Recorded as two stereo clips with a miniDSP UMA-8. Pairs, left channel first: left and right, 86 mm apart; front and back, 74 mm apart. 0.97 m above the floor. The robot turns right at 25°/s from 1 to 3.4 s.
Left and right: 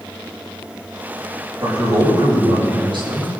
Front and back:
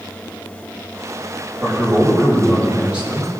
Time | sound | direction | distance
1.6 | a man speaking | 135° right | 5.5 m